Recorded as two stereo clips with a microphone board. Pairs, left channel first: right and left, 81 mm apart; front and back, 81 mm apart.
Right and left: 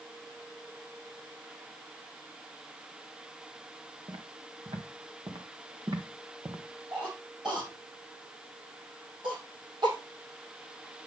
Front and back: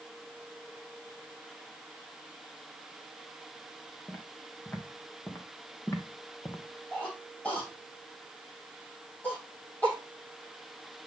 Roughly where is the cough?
Left.